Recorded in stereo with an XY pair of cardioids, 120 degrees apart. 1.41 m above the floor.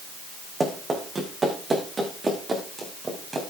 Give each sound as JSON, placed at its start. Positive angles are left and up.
{"t": 0.6, "sound": "running footsteps", "azimuth_deg": -20, "distance_m": 5.5}